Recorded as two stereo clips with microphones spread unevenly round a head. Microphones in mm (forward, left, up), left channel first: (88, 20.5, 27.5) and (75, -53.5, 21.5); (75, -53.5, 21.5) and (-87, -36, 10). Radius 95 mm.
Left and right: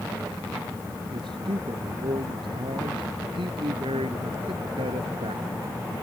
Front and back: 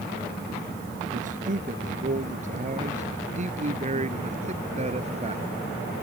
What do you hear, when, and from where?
1.1 s a man speaking: 145° right; by 5.4 s 135° right